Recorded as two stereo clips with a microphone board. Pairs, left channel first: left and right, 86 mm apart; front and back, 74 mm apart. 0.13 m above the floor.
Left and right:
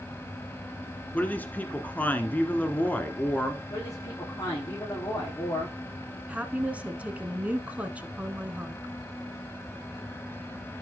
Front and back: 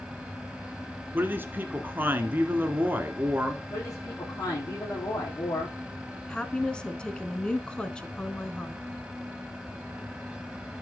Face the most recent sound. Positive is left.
turn(degrees=-50)